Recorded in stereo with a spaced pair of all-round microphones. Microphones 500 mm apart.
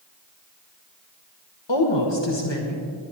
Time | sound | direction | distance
1.7 | a woman speaking | 60° left (ahead or behind) | 1.6 m